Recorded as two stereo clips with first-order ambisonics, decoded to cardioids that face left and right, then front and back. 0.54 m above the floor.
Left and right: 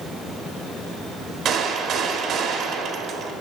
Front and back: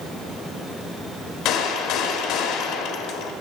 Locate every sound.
1.4 s a gunshot: 35° right, 0.9 m